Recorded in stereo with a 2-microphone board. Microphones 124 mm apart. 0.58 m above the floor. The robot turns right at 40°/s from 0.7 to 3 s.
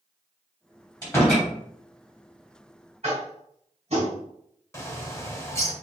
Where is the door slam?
25° left (ahead or behind), 2.5 m; by 1.5 s 10° left (ahead or behind), 2.5 m.